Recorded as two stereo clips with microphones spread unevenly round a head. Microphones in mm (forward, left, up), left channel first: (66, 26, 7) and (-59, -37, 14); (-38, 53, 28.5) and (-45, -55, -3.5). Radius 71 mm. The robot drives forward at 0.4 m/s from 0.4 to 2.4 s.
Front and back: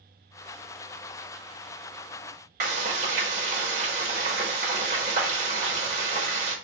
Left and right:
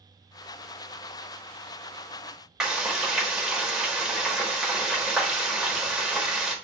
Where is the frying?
170° left, 1.3 m.